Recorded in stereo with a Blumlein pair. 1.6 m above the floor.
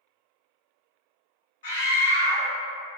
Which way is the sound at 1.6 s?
55° left.